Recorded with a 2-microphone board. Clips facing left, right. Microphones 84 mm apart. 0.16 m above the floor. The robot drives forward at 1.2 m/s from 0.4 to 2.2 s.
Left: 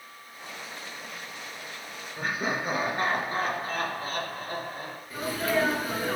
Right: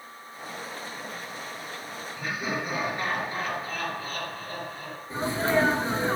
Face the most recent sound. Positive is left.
turn(degrees=-30)  # may be behind; listen again after turning